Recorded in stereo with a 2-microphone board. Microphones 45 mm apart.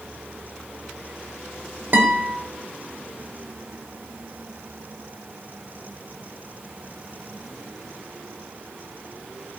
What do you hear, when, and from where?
1.9 s a guitar: 45° right (ahead or behind), 0.7 m